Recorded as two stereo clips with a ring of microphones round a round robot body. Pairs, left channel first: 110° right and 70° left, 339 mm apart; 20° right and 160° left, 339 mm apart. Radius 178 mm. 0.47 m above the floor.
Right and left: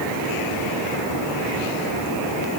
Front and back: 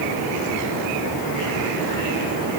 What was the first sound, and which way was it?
Only background noise.